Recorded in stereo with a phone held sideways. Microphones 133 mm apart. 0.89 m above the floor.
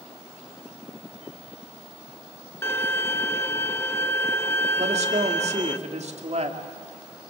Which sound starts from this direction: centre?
A violin, at 2.6 s.